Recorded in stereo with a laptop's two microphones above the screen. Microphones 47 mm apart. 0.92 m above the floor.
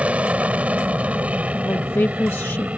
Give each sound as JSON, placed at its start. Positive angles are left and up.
{"t": 0.0, "sound": "an aircraft", "side_deg": -25}
{"t": 1.6, "sound": "a woman speaking", "side_deg": 55}